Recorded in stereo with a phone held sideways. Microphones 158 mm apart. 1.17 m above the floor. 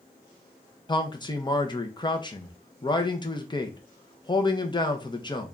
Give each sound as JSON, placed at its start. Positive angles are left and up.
{"t": 0.9, "sound": "a man speaking", "side_deg": 30, "distance_m": 0.7}